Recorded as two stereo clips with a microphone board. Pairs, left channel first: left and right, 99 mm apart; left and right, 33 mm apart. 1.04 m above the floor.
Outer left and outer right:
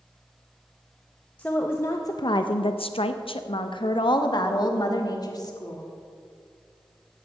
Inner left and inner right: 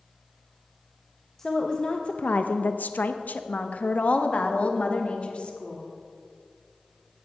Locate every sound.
1.4 s a woman speaking: 15° left (ahead or behind), 0.8 m; by 5.8 s 40° left (ahead or behind), 2 m